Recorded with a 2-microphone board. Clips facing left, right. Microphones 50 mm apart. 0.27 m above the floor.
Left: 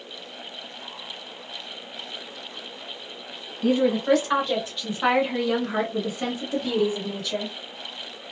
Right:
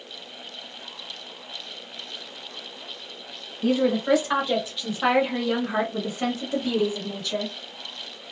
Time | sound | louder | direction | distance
3.6 | a woman speaking | left 1 dB | centre (ahead or behind) | 1.5 m